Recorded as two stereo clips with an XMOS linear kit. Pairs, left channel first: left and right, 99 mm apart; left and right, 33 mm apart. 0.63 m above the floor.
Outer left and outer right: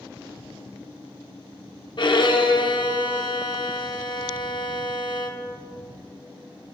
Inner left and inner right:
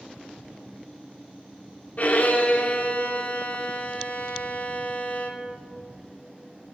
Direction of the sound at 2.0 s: 50° left (ahead or behind).